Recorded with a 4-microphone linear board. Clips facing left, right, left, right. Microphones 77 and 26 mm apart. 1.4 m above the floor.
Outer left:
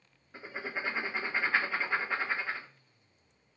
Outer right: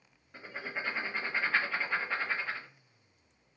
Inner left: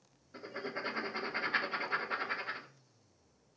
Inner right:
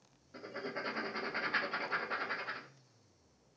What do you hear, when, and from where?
0.3 s writing: 5° left (ahead or behind), 0.9 m